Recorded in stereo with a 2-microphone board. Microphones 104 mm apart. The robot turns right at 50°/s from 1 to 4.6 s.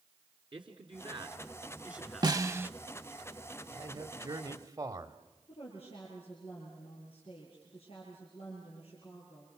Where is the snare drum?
40° right (ahead or behind), 0.6 m; by 2.7 s 20° right (ahead or behind), 0.6 m.